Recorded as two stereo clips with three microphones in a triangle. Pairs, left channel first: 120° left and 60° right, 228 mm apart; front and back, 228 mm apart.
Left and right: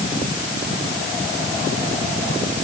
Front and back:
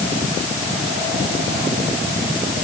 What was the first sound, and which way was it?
Only background noise.